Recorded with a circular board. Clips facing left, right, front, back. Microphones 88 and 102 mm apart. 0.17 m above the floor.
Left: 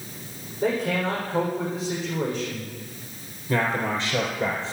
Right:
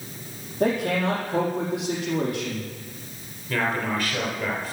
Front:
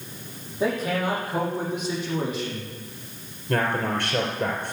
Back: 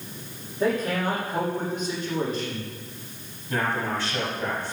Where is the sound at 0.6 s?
80° right, 6.5 m.